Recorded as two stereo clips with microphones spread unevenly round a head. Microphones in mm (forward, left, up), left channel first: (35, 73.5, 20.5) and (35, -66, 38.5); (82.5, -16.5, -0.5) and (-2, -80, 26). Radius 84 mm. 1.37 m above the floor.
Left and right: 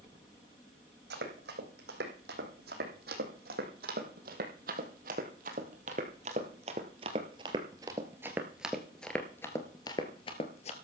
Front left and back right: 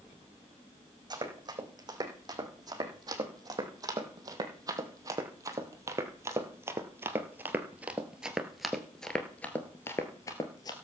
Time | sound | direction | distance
1.1 | running footsteps | 100° right | 4.5 m